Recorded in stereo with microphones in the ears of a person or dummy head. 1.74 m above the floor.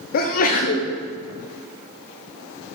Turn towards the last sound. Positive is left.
turn(degrees=50)  # may be behind; listen again after turning